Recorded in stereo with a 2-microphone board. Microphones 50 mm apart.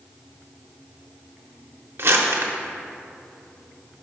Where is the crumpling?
60° right (ahead or behind), 0.8 m.